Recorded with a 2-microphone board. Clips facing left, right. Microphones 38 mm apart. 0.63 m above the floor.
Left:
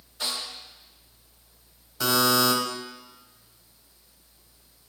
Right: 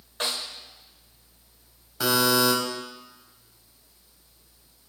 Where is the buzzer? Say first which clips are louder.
Even; 15° right (ahead or behind), 3.5 m.